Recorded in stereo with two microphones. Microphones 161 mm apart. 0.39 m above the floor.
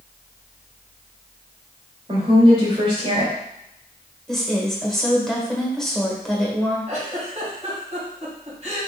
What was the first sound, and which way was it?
A woman speaking, 35° right (ahead or behind).